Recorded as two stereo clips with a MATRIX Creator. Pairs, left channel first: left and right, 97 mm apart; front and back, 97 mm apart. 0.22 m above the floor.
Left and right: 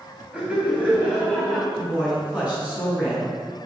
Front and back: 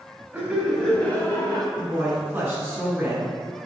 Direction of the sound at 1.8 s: 150° right.